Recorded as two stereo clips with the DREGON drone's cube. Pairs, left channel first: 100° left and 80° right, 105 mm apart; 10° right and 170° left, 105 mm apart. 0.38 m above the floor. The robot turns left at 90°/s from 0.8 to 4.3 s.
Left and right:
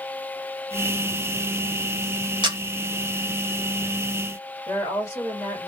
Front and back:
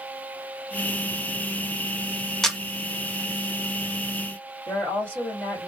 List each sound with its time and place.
2.4 s a camera shutter: 95° right, 0.8 m; by 2.6 s 110° right, 0.8 m
4.7 s a woman speaking: 70° left, 1.7 m